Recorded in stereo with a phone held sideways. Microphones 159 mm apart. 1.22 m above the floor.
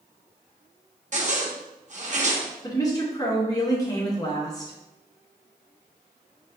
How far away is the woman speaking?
About 1.7 m.